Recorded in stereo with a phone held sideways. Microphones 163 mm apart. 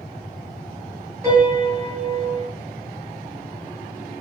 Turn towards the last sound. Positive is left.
turn(degrees=-20)  # may be behind; listen again after turning